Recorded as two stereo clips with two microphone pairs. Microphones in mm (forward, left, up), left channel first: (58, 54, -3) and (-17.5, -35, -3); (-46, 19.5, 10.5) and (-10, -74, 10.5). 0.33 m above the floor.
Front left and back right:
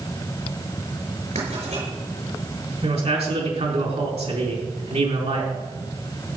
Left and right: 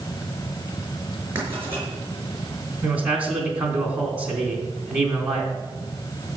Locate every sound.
1.4 s writing: 135° right, 5.5 m
2.8 s a man speaking: 145° right, 3.5 m